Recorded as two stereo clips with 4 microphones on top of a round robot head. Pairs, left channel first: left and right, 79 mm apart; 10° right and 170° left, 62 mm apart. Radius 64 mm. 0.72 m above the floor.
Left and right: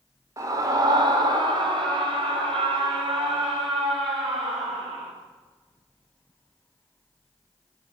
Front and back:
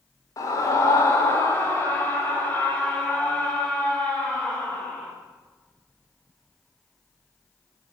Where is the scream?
40° right, 3 m; by 5.1 s 85° right, 8 m.